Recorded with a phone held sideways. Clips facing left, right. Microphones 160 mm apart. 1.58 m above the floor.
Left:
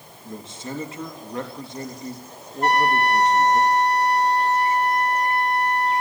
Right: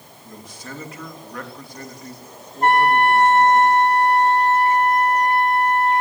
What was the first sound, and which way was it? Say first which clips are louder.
A man speaking: left 4 dB; 25° left (ahead or behind).